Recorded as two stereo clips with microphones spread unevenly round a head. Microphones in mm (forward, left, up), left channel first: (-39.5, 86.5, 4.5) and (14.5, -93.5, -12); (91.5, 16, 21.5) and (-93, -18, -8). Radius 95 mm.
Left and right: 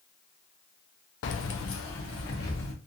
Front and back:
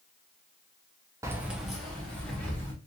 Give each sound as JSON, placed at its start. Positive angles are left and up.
{"t": 1.2, "sound": "keys jangling", "azimuth_deg": 115, "distance_m": 0.5}